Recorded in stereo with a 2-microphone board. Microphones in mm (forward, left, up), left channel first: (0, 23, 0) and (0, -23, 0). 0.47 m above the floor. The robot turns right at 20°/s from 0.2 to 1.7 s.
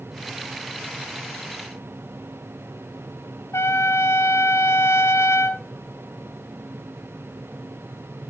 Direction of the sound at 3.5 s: 80° left.